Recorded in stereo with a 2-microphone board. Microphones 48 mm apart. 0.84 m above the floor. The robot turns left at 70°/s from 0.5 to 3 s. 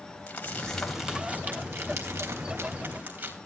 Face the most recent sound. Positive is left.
turn(degrees=-35)  # may be behind; listen again after turning